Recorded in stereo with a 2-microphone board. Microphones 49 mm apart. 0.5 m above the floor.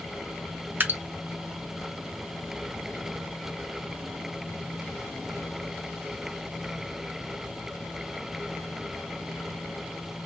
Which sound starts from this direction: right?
Dripping, at 0.8 s.